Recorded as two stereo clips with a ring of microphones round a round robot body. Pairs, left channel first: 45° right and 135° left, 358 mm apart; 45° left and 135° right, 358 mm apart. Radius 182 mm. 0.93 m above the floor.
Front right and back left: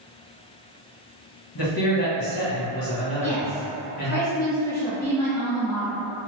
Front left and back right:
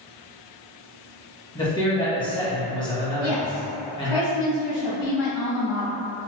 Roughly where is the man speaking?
Ahead right.